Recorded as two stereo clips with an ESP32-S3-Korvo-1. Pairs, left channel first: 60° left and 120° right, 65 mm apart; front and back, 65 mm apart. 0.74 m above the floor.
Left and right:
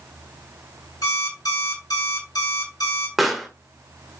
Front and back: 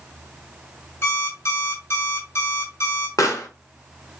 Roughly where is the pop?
Ahead right.